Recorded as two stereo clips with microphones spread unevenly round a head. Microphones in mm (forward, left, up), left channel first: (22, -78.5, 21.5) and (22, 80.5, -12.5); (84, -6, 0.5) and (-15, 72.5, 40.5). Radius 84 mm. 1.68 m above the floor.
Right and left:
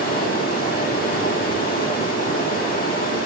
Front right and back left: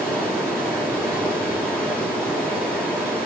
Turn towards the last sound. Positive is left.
turn(degrees=-125)